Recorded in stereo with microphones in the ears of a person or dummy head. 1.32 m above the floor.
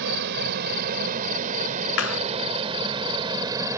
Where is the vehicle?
60° right (ahead or behind); by 3.8 s 15° right (ahead or behind).